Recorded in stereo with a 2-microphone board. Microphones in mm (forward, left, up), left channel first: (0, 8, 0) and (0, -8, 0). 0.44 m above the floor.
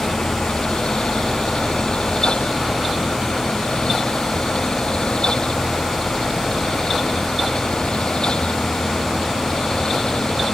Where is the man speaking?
No man speaking in this recording.